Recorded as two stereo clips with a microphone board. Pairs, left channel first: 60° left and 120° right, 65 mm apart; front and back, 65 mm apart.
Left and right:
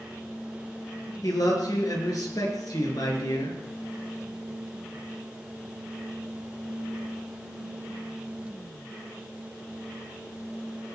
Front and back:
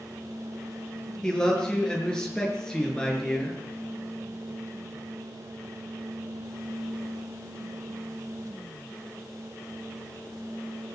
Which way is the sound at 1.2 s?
80° left.